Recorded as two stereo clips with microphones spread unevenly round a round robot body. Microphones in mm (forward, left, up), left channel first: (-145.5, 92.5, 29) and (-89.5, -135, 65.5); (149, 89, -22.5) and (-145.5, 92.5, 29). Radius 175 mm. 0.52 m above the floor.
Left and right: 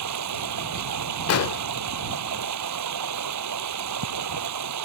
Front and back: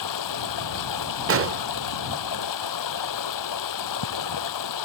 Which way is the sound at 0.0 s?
40° right.